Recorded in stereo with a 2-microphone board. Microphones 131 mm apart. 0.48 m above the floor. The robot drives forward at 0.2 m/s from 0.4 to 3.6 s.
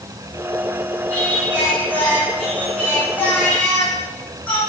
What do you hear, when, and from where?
1.1 s singing: 10° left (ahead or behind), 6.5 m